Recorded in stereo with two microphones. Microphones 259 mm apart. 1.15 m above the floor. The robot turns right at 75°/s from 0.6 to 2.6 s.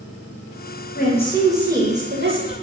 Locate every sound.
0.9 s a woman speaking: 135° left, 0.6 m; by 2.5 s 105° right, 0.6 m